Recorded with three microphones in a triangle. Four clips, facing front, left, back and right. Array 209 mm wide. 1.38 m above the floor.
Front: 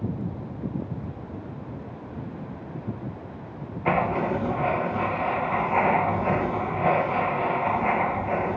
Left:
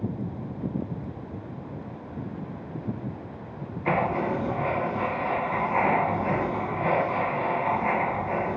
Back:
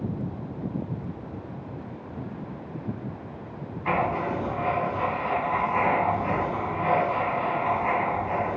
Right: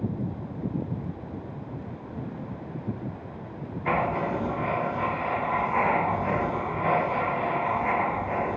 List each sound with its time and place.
3.9 s writing: 10° left, 1.1 m